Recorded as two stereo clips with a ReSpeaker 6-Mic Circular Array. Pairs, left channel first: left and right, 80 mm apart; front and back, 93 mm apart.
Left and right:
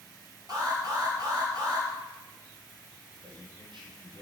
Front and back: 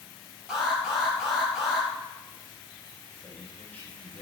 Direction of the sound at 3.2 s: 75° right.